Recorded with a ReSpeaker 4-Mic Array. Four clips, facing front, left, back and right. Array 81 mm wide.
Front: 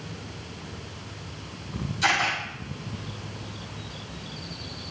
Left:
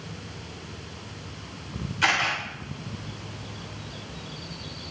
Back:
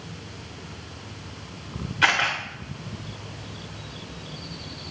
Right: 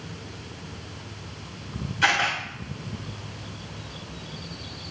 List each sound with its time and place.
2.0 s a camera shutter: 175° left, 2.5 m